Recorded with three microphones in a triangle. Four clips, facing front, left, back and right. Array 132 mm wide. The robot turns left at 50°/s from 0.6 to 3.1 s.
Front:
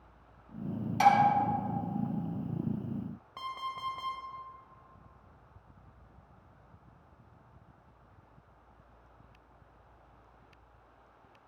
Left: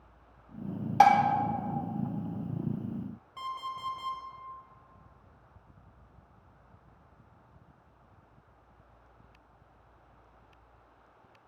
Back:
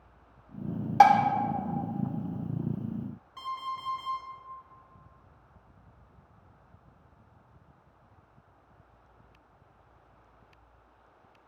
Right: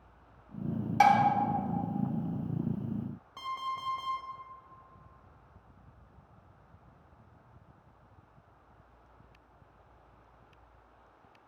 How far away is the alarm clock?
About 1.2 m.